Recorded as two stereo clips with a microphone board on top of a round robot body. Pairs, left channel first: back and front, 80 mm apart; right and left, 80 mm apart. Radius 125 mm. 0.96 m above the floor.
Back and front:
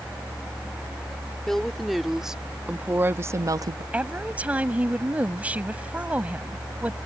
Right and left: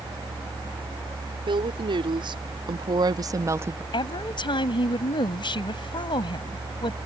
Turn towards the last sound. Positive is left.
turn(degrees=-75)